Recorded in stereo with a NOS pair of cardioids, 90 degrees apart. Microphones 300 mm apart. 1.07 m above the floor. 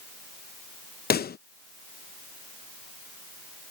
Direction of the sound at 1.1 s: 35° left.